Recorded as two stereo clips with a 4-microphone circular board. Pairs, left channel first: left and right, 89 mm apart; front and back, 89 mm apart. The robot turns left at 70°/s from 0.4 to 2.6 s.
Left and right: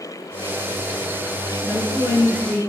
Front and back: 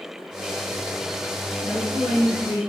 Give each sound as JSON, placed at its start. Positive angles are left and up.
{"t": 1.6, "sound": "a woman speaking", "azimuth_deg": -30, "distance_m": 1.4}